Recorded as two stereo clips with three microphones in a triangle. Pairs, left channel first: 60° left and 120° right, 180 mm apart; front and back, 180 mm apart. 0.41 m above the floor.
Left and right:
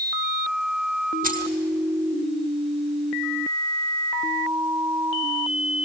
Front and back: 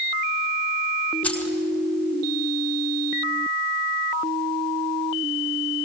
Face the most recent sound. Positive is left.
turn(degrees=-80)